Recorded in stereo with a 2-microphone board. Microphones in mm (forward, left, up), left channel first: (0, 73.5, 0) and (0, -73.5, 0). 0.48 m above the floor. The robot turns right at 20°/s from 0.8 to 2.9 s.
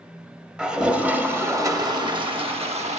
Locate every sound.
0.6 s a toilet flushing: 175° right, 0.5 m; by 3.0 s 135° right, 0.5 m